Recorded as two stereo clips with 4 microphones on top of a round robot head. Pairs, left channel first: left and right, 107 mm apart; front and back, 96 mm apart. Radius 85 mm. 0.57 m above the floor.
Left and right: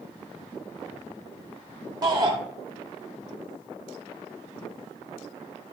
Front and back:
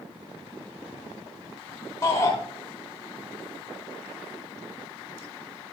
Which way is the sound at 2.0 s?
50° right.